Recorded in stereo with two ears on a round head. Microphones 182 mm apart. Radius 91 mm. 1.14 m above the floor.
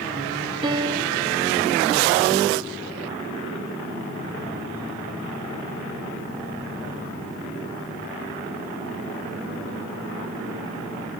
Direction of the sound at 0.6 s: 25° right (ahead or behind).